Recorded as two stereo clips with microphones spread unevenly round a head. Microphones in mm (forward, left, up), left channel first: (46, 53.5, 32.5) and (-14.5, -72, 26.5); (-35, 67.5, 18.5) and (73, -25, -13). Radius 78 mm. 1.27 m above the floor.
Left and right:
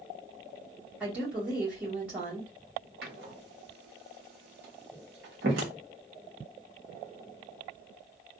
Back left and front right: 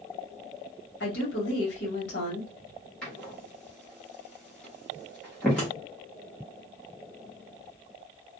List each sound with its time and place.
1.0 s a woman speaking: 165° left, 2 m
3.0 s a door slam: 140° right, 1.2 m